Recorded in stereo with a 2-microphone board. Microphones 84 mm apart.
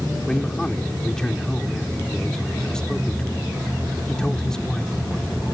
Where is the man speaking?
10° left (ahead or behind).